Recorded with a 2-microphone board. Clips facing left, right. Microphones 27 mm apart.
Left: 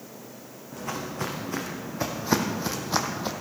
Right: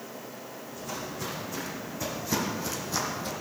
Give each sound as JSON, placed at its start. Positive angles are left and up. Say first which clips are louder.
{"t": 0.7, "sound": "footsteps", "louder": "left 5 dB", "side_deg": 60, "distance_m": 2.5}